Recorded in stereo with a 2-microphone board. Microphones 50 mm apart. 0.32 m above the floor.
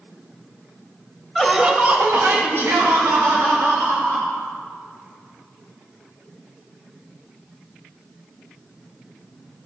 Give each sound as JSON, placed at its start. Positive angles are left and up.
{"t": 1.4, "sound": "laughter", "side_deg": 5, "distance_m": 1.3}